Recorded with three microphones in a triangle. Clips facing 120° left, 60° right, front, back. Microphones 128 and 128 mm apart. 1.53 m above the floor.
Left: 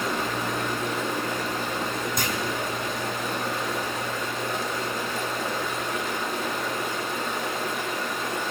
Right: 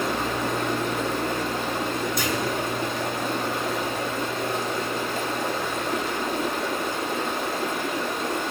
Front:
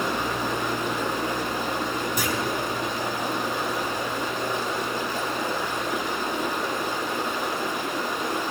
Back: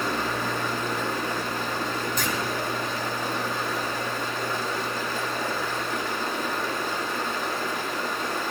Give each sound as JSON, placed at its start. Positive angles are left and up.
{"t": 0.0, "sound": "running water", "azimuth_deg": -70, "distance_m": 1.6}
{"t": 2.2, "sound": "a clunk", "azimuth_deg": 75, "distance_m": 2.0}